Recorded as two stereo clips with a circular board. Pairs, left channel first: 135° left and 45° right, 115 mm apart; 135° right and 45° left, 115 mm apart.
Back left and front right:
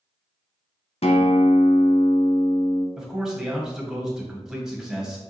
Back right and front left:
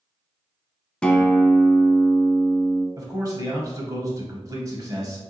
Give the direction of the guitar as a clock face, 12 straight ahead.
7 o'clock.